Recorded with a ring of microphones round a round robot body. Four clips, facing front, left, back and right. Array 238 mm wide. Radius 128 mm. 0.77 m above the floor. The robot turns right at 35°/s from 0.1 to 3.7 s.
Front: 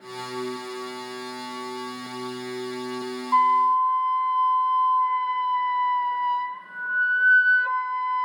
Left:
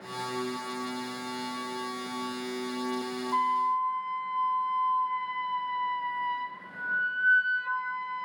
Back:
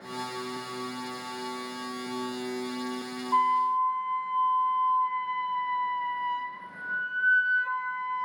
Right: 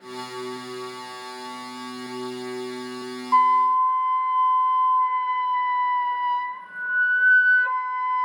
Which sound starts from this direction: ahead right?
A flute, at 3.3 s.